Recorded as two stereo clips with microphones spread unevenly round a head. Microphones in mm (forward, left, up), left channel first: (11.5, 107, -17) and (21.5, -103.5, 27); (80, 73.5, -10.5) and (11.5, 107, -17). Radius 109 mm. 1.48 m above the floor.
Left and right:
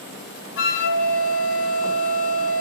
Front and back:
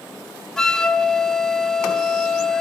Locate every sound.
0.6 s a flute: 55° left, 1.1 m